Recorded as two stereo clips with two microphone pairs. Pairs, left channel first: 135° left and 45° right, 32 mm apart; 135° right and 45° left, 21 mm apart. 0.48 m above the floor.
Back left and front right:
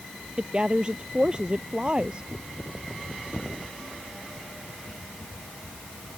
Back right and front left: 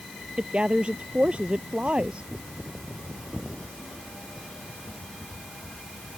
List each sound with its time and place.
0.4 s a woman speaking: 20° left